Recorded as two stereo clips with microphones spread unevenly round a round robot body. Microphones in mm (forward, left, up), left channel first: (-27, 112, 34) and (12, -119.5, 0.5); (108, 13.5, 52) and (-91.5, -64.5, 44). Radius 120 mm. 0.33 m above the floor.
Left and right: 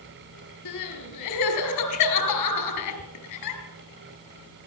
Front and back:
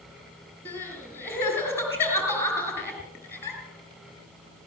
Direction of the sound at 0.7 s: 100° left.